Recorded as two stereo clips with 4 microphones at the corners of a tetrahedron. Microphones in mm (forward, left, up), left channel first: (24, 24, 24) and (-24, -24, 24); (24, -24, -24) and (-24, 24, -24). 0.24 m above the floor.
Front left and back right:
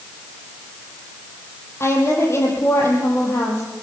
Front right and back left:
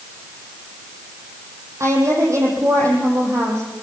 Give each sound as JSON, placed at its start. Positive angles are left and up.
{"t": 1.8, "sound": "a woman speaking", "azimuth_deg": 95, "distance_m": 7.0}